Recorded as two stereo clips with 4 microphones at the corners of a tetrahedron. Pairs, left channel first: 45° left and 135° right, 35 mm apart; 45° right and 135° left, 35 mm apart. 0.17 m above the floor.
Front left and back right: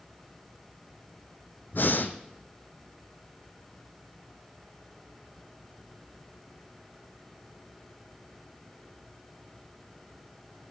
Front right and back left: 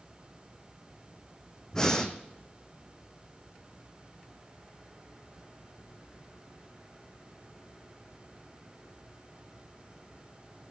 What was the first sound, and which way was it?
Breathing, 25° left.